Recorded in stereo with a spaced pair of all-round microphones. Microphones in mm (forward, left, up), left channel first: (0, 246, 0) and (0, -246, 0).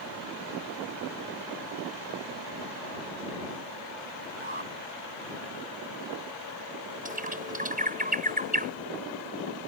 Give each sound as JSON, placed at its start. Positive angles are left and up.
{"t": 4.4, "sound": "an alarm", "side_deg": -80}
{"t": 7.0, "sound": "a bird", "side_deg": -15}